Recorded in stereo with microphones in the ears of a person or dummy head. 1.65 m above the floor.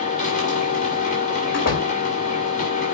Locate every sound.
0.0 s a machine running: 45° left (ahead or behind), 2.5 m
1.5 s a door slam: 60° left (ahead or behind), 2 m